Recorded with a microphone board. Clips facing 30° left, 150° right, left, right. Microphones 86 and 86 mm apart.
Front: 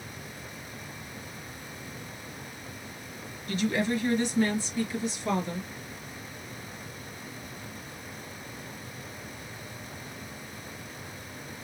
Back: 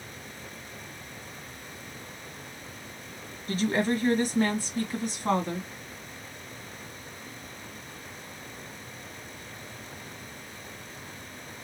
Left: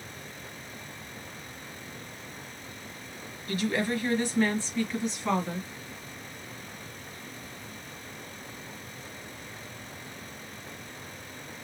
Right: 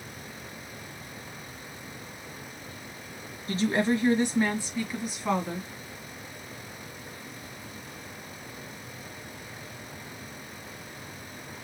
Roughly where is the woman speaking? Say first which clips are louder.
Back 1 dB, right 3 dB; behind right.